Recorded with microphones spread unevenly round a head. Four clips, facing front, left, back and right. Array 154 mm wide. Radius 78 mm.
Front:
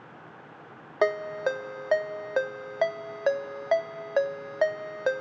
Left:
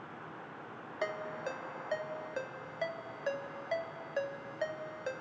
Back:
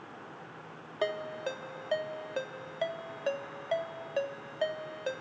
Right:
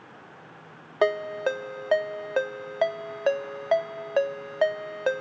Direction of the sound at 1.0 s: 60° right.